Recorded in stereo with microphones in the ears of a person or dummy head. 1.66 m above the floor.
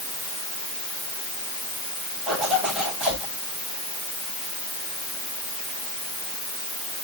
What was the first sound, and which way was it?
A zipper, 5° right (ahead or behind).